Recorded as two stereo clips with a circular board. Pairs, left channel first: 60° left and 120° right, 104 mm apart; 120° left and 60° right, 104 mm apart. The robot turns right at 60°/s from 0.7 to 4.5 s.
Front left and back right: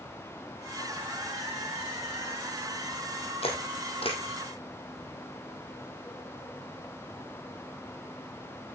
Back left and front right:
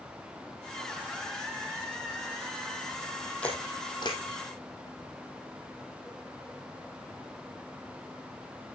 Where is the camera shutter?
40° left, 2.5 m; by 4.2 s 90° left, 2.5 m.